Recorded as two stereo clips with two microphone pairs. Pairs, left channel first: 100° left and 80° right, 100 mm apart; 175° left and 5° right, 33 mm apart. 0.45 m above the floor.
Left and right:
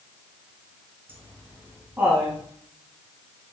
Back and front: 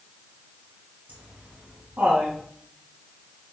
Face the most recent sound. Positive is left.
turn(degrees=-5)